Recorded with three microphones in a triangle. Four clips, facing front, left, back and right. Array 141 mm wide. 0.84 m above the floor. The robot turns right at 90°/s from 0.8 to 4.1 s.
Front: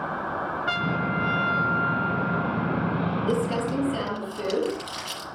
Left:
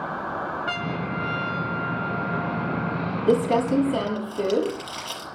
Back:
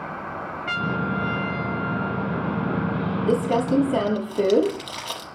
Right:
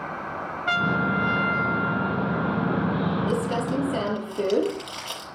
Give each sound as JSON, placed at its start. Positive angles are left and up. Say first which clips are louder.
{"t": 0.7, "sound": "a trumpet", "louder": "right 5 dB, back 3 dB", "azimuth_deg": -105, "distance_m": 1.3}
{"t": 3.3, "sound": "crumpling", "louder": "left 5 dB, back 7 dB", "azimuth_deg": 105, "distance_m": 6.0}